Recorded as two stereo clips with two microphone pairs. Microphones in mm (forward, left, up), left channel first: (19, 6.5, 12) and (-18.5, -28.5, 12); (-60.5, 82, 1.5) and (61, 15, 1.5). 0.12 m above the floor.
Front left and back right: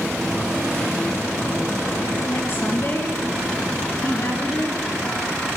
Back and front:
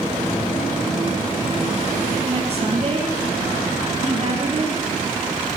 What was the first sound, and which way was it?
A woman speaking, 10° left.